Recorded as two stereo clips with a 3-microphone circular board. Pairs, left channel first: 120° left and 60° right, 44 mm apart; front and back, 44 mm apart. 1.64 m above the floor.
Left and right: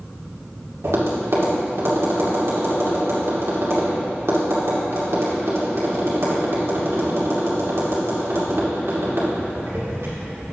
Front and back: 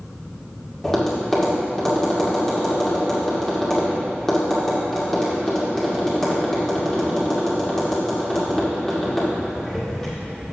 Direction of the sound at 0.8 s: 85° right.